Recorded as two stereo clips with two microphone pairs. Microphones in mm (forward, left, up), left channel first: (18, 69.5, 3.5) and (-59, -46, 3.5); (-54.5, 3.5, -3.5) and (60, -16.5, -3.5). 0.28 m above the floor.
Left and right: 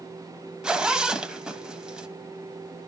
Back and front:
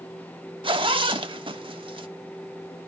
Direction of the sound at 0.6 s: 40° right.